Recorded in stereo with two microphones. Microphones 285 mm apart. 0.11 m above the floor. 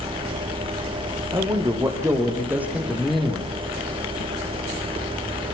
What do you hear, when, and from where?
1.3 s a man speaking: 15° right (ahead or behind), 5 m; by 3.5 s 5° left (ahead or behind), 4 m